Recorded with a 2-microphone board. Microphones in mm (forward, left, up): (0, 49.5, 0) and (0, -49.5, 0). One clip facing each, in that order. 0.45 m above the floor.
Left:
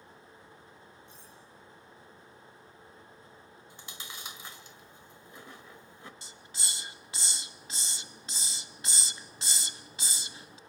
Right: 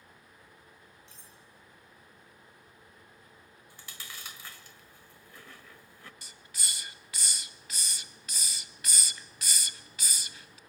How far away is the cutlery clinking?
About 7.5 m.